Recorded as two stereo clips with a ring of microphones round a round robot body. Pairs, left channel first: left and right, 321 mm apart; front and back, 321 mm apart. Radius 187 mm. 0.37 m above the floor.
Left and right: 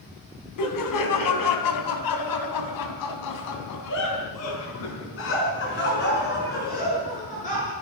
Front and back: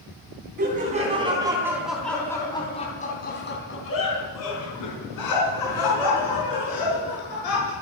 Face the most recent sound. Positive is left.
turn(degrees=20)